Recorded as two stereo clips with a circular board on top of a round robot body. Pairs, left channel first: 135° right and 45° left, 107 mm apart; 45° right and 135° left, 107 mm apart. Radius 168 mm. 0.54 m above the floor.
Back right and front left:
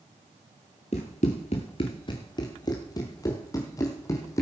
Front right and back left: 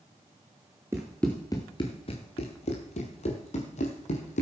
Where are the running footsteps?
160° right, 0.5 m; by 4.4 s 70° right, 1.8 m.